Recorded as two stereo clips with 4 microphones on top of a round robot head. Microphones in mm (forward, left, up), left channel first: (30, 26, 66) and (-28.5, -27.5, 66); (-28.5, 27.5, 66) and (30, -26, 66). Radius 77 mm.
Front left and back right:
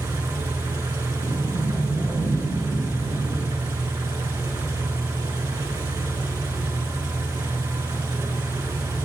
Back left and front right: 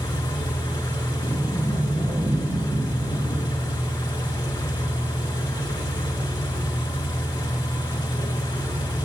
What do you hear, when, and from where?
0.0 s an engine running: straight behind, 1.4 m
1.2 s a sliding door: 30° right, 2.5 m